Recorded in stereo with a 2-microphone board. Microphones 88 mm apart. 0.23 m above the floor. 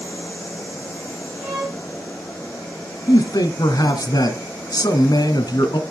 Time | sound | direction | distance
1.4 | a violin | 35° right (ahead or behind) | 9.5 m
3.1 | a man speaking | 55° left (ahead or behind) | 2 m